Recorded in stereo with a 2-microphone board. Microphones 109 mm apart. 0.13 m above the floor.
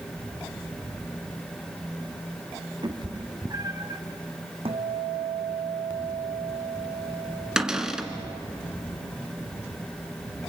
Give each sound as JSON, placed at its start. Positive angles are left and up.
{"t": 2.8, "sound": "a cat meowing", "side_deg": -45, "distance_m": 1.8}
{"t": 4.7, "sound": "a guitar", "side_deg": -60, "distance_m": 1.9}
{"t": 7.6, "sound": "a cupboard door", "side_deg": -5, "distance_m": 1.7}